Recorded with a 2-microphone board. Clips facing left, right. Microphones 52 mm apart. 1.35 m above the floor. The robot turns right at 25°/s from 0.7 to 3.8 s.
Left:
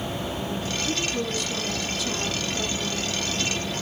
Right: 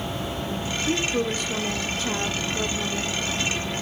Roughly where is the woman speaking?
Right.